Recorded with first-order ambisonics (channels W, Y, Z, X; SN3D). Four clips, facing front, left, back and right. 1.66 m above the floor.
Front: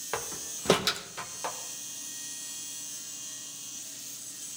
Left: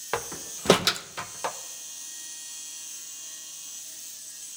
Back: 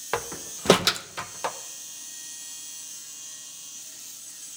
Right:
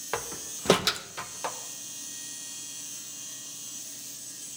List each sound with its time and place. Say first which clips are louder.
0.1 s a door slam: left 3 dB, back 5 dB; 155° left, 0.5 m